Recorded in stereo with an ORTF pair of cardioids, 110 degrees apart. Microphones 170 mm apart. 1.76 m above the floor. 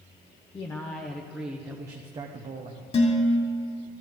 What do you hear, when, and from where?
0.5 s a man speaking: 25° left, 1.2 m; by 2.8 s 50° right, 1.1 m
2.9 s dishes clattering: 35° left, 3 m